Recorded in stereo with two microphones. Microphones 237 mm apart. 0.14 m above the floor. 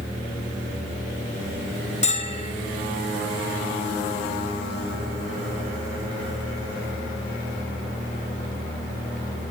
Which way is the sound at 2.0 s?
30° left (ahead or behind).